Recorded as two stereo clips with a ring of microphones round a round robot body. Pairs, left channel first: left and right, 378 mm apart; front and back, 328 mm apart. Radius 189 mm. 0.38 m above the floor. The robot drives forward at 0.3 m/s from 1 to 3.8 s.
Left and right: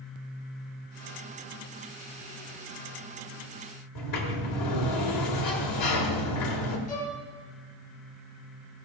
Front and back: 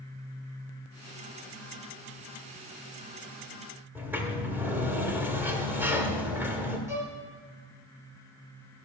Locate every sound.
4.0 s a sliding door: 100° left, 1.6 m
6.9 s a violin: 95° left, 3.5 m